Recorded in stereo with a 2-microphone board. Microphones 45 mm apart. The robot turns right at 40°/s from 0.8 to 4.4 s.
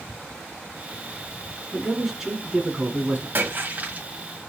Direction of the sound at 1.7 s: 170° left.